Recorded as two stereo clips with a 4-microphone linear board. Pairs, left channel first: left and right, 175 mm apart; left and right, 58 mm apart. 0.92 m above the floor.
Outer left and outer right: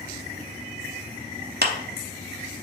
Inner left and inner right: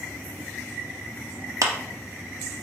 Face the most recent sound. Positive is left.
turn(degrees=-70)  # may be behind; listen again after turning